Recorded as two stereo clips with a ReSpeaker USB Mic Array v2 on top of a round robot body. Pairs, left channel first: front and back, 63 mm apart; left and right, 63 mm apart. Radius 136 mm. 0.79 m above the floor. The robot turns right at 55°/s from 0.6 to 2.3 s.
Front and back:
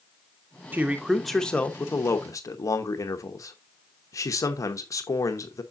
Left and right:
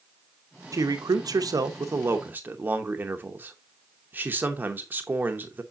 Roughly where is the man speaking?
Behind right.